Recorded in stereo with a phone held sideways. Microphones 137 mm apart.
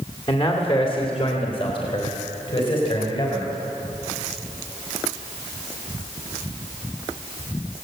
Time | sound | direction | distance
0.3 | a man speaking | 45° left (ahead or behind) | 2.5 m